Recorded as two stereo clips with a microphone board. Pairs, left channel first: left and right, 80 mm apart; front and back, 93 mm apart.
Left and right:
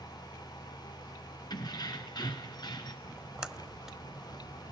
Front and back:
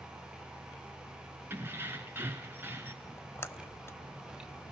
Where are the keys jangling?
115° left, 2.5 m.